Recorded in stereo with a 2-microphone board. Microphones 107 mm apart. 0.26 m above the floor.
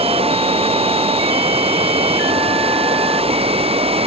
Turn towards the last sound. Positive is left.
turn(degrees=-70)  # may be behind; listen again after turning